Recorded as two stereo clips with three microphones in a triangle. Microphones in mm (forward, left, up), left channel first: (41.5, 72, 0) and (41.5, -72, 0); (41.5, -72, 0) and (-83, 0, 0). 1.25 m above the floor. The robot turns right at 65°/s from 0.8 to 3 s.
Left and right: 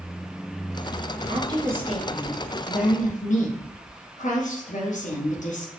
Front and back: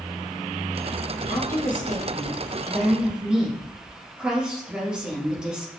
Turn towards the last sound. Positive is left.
turn(degrees=65)